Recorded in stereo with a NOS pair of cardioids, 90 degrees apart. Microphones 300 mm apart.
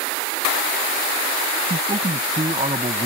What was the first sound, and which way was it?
A man speaking, 20° right.